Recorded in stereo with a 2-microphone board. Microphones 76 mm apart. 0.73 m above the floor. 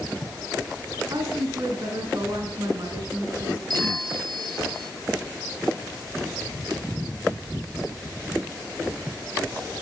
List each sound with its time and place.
1.1 s a woman speaking: 60° right (ahead or behind), 8 m; by 3.6 s 55° right (ahead or behind), 10 m
3.7 s a bell: 65° right (ahead or behind), 8.5 m